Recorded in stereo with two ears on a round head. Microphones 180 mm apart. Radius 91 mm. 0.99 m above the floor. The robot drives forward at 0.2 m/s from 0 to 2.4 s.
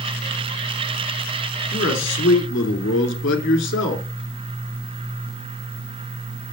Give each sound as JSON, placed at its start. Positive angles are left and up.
{"t": 1.7, "sound": "a man speaking", "side_deg": 55, "distance_m": 2.5}